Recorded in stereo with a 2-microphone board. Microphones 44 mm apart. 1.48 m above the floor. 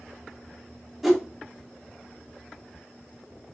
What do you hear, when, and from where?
1.0 s a whoosh: 5° right (ahead or behind), 0.6 m